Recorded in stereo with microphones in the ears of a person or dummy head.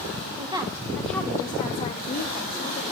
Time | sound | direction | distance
0.4 | a woman speaking | 30° right (ahead or behind) | 1.3 m